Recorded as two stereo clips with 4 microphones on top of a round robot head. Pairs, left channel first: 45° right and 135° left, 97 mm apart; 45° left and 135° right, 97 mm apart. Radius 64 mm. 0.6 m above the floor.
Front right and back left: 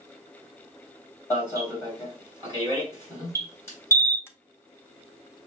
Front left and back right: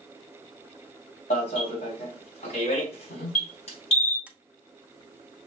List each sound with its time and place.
1.3 s an alarm: 20° left, 2 m
4.3 s tapping: 75° right, 0.8 m